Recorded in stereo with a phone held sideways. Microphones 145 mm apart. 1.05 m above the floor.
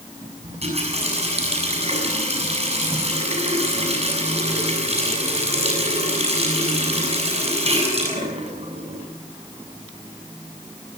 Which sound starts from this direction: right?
A running tap, at 0.4 s.